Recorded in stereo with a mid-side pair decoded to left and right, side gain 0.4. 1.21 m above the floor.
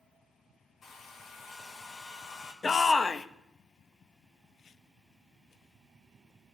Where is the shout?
40° left, 1.0 m.